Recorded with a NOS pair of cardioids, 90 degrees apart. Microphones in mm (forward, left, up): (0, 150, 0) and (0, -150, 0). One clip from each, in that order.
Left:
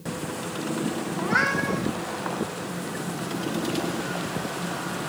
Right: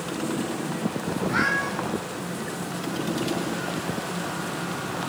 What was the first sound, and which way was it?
A cat meowing, 50° left.